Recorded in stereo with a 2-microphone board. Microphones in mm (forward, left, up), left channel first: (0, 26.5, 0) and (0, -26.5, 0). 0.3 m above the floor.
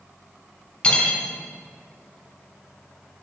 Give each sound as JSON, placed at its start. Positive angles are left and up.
{"t": 0.8, "sound": "cutlery clinking", "side_deg": 20, "distance_m": 1.3}